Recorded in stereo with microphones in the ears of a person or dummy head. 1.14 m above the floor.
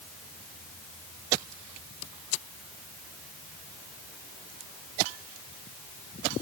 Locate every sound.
Only background noise.